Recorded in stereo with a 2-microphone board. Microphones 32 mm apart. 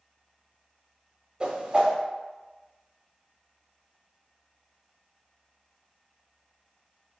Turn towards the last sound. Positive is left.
turn(degrees=-30)  # may be behind; listen again after turning